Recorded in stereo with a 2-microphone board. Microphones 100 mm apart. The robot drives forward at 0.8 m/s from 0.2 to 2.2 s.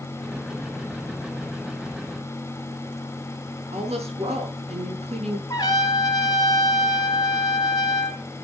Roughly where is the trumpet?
Left.